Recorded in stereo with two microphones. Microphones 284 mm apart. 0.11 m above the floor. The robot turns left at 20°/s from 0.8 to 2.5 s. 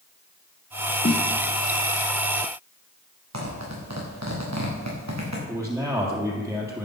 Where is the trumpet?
No trumpet in this recording.